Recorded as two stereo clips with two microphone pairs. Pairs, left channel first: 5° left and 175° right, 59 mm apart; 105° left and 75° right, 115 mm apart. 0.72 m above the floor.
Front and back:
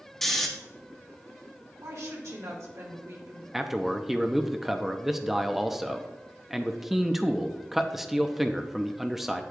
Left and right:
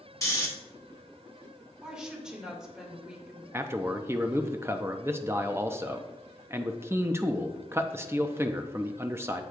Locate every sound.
0.2 s snoring: 80° left, 1.2 m
1.8 s a woman speaking: 155° right, 1.9 m
3.5 s a man speaking: 95° right, 0.6 m